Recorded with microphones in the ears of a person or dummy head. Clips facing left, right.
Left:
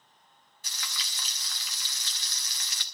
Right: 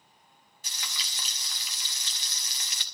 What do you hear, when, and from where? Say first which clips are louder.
0.6 s frying: even; 25° right (ahead or behind), 1.5 m